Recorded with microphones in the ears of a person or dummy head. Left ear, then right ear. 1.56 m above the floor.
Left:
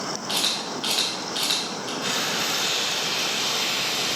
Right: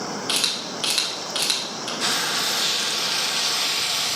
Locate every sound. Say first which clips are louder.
0.3 s a camera shutter: right 1 dB; 30° right (ahead or behind), 2.0 m
2.0 s frying: right 3 dB; 55° right (ahead or behind), 1.3 m